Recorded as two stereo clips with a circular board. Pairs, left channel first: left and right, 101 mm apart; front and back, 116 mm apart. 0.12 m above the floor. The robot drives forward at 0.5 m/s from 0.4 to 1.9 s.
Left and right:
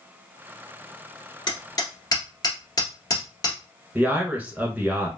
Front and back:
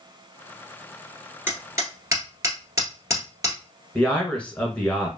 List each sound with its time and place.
1.5 s hammering: 115° left, 1.3 m; by 3.6 s 125° left, 1.4 m
4.0 s a man speaking: 55° right, 1.0 m